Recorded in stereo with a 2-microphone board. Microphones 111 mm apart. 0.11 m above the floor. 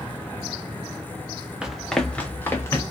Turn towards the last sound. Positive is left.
turn(degrees=25)  # may be behind; listen again after turning